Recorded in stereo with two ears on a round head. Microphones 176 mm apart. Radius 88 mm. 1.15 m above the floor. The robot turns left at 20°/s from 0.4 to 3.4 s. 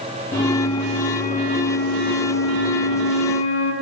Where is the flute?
155° left, 6.5 m; by 3.7 s 95° left, 6.5 m.